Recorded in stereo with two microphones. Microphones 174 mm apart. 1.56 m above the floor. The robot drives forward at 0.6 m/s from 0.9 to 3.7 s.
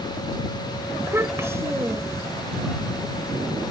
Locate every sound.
1.0 s a child speaking: 15° right (ahead or behind)